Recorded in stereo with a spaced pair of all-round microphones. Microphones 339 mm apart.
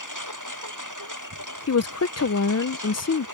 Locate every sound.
0.0 s a lawn mower: 60° right (ahead or behind)
1.7 s a woman speaking: 50° left (ahead or behind)